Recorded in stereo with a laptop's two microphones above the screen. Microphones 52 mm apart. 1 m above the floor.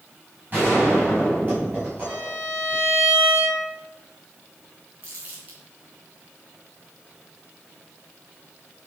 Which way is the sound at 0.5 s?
40° right (ahead or behind).